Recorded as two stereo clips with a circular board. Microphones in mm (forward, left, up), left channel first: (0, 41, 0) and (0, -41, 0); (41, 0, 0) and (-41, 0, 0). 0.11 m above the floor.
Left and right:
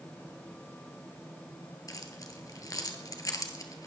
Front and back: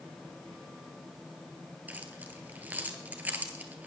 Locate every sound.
1.9 s keys jangling: 115° left, 1.7 m